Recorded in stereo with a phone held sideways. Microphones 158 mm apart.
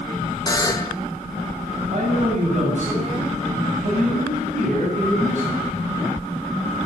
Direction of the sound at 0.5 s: 25° left (ahead or behind).